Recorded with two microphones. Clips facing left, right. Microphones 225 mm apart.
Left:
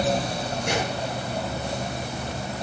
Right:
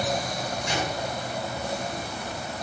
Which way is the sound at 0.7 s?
65° left (ahead or behind).